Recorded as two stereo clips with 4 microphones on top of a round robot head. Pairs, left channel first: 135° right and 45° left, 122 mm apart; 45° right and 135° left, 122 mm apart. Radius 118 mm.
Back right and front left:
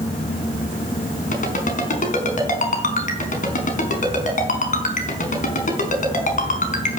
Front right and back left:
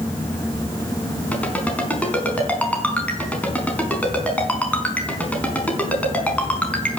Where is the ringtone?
125° right, 4.5 m.